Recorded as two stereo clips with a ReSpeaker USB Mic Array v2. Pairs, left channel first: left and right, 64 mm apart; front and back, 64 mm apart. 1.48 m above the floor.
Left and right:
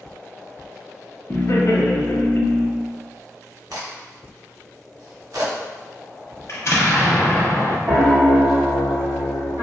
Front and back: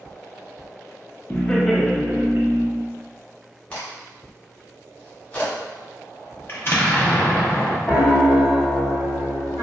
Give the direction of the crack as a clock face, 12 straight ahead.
2 o'clock.